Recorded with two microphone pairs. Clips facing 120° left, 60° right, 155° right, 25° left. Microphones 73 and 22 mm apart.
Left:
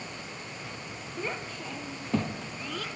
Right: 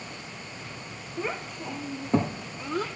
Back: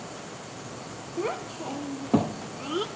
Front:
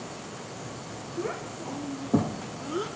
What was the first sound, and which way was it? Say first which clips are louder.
A child speaking: right 3 dB, back 3 dB; 140° right.